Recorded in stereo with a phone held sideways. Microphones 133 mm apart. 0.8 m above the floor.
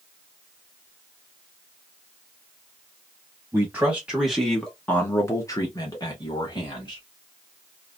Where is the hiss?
No hiss in this recording.